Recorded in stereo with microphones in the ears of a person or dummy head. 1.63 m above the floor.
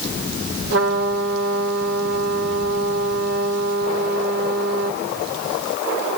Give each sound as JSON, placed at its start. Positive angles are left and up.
{"t": 0.7, "sound": "a trumpet", "side_deg": -60, "distance_m": 4.0}